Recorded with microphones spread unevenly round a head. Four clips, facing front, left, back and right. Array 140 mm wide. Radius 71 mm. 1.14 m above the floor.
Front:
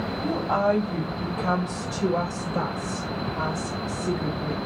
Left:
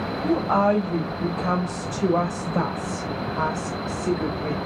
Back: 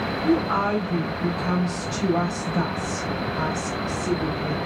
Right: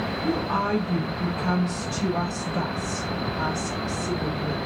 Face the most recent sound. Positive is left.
turn(degrees=90)